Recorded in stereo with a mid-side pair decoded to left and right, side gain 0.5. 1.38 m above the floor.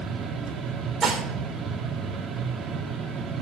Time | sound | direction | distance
0.0 | a fan | 45° right | 2 m
1.0 | dishes clattering | 35° right | 3 m